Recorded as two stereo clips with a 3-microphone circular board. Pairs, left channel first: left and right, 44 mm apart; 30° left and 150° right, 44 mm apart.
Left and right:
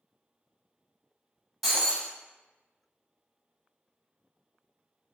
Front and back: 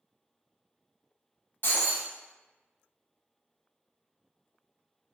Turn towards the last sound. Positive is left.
turn(degrees=0)